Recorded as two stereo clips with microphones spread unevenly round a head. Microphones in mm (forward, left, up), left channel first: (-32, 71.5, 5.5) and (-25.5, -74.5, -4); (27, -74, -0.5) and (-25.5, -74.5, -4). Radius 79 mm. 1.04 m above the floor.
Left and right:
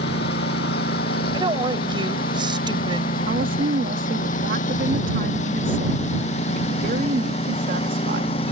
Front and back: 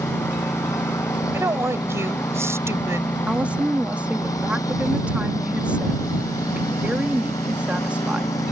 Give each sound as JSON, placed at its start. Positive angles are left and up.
{"t": 0.0, "sound": "a lawn mower", "azimuth_deg": 65}
{"t": 1.3, "sound": "a woman speaking", "azimuth_deg": -145}
{"t": 3.3, "sound": "a woman speaking", "azimuth_deg": -115}